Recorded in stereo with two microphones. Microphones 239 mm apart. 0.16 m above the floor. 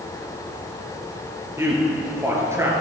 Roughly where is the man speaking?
Centre.